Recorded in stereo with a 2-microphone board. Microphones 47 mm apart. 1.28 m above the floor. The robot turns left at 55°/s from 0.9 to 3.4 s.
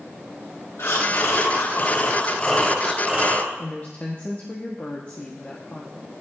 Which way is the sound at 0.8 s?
105° left.